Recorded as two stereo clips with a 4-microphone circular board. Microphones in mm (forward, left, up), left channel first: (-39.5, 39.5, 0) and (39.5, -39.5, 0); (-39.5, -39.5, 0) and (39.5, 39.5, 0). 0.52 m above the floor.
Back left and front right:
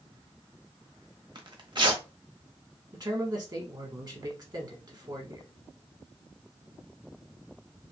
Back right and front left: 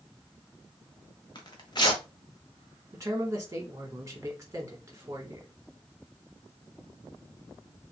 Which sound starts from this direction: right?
Tearing paper, at 1.4 s.